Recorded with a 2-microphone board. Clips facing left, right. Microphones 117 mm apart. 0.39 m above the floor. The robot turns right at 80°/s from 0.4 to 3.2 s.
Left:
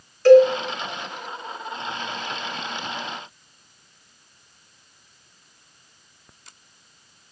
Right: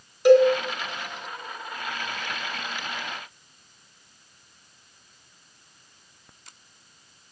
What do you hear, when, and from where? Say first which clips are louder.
0.2 s a cowbell: left 4 dB; 15° right (ahead or behind), 1.9 m; by 0.5 s 20° right (ahead or behind), 1.9 m